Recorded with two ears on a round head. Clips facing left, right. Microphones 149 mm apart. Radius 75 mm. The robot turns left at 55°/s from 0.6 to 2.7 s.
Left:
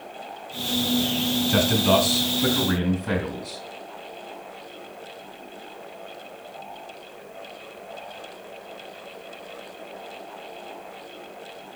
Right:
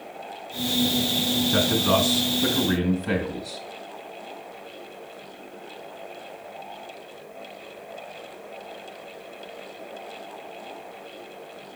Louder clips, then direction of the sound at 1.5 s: Left 2 dB; 75° left.